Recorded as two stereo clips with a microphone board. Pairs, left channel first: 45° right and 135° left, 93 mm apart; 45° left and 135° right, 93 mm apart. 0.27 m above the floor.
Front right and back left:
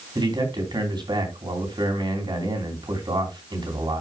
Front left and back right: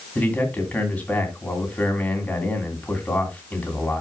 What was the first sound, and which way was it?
A man speaking, 115° left.